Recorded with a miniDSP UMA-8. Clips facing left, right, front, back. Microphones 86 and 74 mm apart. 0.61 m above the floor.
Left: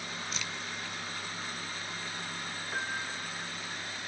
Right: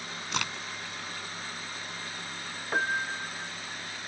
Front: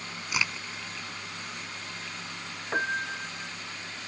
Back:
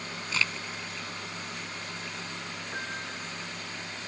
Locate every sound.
0.3 s a crack: 75° right
2.7 s a piano: 45° right